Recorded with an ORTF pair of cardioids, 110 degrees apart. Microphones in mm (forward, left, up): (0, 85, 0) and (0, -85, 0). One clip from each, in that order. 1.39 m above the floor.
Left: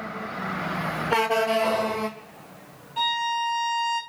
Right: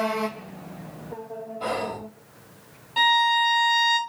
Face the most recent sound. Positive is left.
turn(degrees=-55)